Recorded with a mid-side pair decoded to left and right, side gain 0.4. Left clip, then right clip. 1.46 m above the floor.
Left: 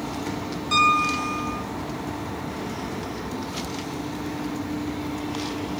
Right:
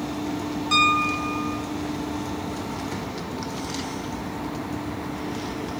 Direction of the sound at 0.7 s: 20° right.